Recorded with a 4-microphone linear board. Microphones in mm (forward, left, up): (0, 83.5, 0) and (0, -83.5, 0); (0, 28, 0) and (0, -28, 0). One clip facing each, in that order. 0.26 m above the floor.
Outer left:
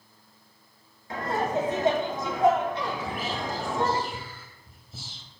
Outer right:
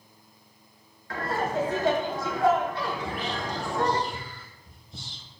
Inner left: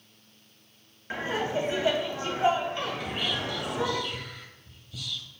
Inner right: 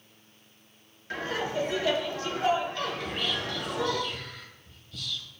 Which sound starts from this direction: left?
Laughter, at 1.1 s.